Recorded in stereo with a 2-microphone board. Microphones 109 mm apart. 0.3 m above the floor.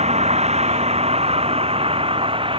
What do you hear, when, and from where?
0.0 s a vehicle: 85° right; by 2.6 s 55° right (ahead or behind)